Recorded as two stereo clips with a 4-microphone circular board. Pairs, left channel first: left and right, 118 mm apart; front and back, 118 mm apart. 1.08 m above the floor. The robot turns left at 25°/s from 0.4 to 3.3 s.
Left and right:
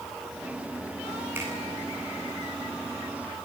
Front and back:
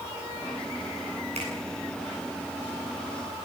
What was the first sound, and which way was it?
A finger snap, 160° right.